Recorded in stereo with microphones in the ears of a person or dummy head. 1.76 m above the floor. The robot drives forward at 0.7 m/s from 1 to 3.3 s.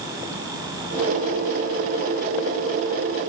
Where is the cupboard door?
I don't hear a cupboard door.